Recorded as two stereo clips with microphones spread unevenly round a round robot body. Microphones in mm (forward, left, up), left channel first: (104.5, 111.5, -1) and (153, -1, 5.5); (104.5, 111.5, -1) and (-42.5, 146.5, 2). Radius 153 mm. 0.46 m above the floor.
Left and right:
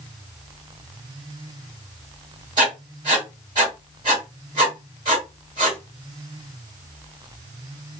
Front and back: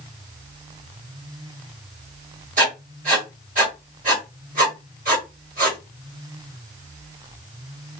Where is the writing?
140° right, 1.1 m.